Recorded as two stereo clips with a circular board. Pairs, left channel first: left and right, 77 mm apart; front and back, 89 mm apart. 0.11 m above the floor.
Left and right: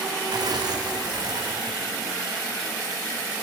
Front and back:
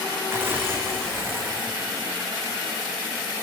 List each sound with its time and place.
0.3 s tearing paper: 115° right, 4 m